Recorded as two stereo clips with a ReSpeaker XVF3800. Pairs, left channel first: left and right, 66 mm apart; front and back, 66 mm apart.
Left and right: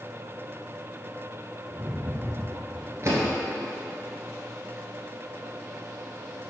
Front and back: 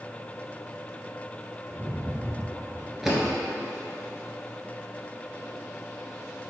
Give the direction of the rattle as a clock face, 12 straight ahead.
4 o'clock.